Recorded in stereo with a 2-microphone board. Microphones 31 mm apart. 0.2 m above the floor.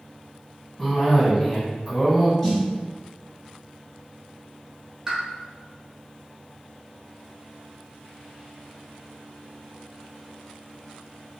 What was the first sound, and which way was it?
A cough, 10° left (ahead or behind).